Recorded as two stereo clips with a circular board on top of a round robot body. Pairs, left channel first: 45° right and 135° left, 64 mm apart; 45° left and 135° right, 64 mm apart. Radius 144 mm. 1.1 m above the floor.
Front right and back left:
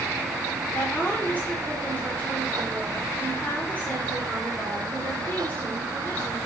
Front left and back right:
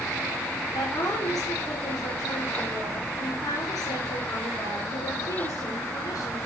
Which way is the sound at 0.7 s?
20° left.